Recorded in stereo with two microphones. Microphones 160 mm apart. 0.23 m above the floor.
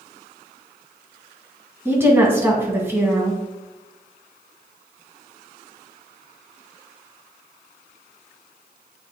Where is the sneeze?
No sneeze in this recording.